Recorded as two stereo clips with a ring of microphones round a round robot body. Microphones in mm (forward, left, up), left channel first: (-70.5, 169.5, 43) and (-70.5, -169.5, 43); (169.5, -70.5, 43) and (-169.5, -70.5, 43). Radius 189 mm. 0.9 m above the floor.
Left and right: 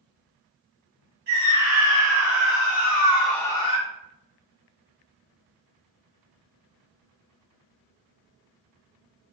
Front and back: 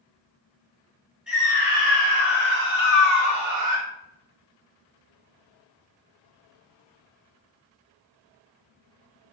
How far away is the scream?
About 1.6 m.